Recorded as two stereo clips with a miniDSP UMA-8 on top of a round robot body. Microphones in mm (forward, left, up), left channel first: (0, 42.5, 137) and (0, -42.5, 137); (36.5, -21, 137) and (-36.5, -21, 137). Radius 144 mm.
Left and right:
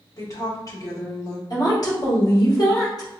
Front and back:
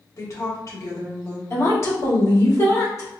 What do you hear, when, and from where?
0.2 s a woman speaking: 45° left, 2.0 m
1.5 s a woman speaking: 50° left, 2.0 m